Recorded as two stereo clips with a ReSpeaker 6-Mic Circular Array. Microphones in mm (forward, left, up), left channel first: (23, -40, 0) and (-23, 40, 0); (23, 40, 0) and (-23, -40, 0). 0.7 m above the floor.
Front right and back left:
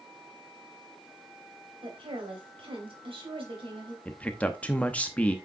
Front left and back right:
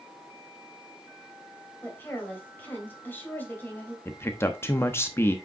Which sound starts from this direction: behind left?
A woman speaking, at 1.8 s.